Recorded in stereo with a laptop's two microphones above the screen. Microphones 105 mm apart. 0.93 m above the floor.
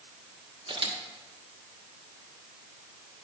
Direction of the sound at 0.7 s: 55° right (ahead or behind).